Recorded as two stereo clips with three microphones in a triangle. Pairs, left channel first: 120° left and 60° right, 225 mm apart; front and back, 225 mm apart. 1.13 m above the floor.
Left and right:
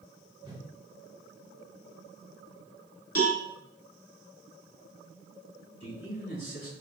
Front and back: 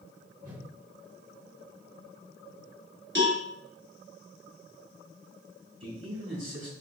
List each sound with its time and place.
0.4 s a whoosh: 125° right, 1.4 m
3.1 s a cowbell: 140° left, 1.2 m
5.8 s a man speaking: 165° left, 2.5 m